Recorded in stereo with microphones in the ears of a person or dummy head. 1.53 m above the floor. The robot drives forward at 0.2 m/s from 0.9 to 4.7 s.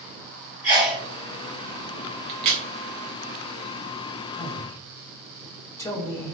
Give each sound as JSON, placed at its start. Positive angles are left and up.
{"t": 0.6, "sound": "a sneeze", "side_deg": -10, "distance_m": 1.9}
{"t": 2.3, "sound": "a crack", "side_deg": -25, "distance_m": 0.6}
{"t": 4.4, "sound": "a man speaking", "side_deg": 15, "distance_m": 0.8}